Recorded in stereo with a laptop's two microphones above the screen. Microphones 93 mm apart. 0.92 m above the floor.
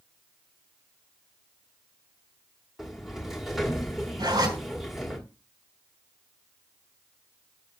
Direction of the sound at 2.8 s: 5° right (ahead or behind).